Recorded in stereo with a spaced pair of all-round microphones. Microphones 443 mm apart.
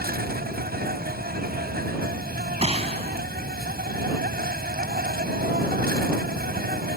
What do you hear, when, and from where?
0.0 s an insect: 20° right (ahead or behind)
2.6 s a gunshot: 15° right (ahead or behind)